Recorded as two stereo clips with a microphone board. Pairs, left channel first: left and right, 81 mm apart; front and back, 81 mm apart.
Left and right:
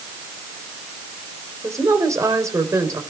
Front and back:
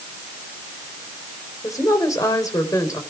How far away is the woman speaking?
About 3 m.